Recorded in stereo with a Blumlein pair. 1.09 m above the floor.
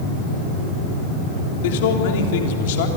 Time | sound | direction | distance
1.6 | a man speaking | 50° left | 3.5 m